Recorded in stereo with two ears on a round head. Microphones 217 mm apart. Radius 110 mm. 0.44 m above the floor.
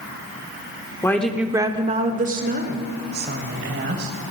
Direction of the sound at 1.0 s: 10° left (ahead or behind).